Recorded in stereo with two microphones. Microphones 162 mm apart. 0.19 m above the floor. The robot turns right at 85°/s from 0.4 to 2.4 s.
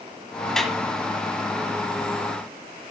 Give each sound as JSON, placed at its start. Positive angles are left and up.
{"t": 0.6, "sound": "a clap", "side_deg": 5, "distance_m": 1.3}